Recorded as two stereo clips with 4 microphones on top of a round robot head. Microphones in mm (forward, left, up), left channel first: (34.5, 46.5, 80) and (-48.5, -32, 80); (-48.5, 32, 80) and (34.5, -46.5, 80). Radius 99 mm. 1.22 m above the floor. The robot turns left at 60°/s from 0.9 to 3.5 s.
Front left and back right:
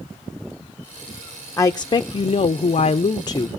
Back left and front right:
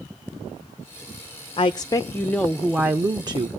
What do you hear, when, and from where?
1.6 s a woman speaking: 105° left, 0.5 m; by 3.5 s 10° right, 0.5 m